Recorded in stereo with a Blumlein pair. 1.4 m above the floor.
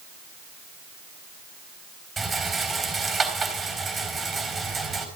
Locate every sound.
2.2 s a rattle: 10° right, 3.5 m